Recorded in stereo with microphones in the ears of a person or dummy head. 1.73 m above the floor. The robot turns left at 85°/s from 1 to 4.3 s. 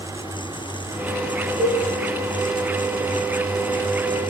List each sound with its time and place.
1.6 s a cowbell: 25° right (ahead or behind), 3.5 m; by 1.8 s 45° right (ahead or behind), 3.5 m